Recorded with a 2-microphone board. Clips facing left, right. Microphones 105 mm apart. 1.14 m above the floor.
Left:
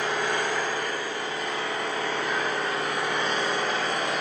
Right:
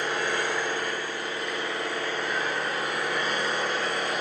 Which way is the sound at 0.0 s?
65° left (ahead or behind).